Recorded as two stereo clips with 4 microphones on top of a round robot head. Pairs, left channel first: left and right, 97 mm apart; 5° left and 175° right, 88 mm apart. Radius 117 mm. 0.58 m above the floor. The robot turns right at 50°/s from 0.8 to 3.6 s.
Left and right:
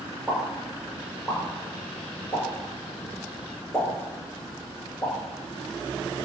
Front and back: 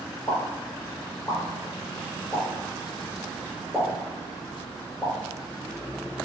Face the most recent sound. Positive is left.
turn(degrees=125)